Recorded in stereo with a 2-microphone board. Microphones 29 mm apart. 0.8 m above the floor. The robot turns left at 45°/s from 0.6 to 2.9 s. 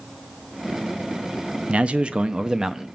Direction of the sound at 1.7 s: 105° right.